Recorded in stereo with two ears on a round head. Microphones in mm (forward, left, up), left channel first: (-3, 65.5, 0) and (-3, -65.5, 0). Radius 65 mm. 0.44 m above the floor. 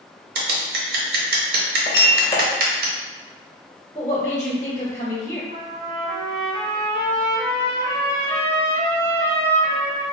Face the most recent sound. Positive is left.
turn(degrees=-60)  # may be behind; listen again after turning